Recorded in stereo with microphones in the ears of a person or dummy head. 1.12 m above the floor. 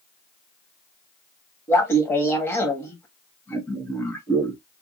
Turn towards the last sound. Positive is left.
turn(degrees=10)  # may be behind; listen again after turning